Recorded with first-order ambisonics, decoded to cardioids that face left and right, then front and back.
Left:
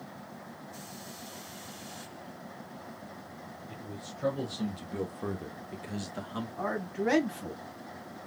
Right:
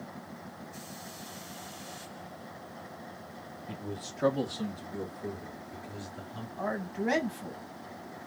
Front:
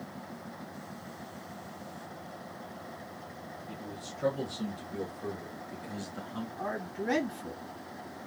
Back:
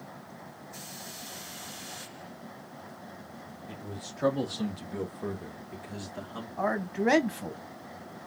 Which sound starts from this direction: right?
A man speaking, at 3.7 s.